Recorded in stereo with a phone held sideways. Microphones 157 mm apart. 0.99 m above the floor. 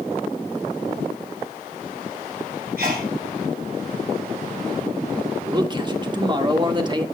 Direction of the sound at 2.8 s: 75° right (ahead or behind).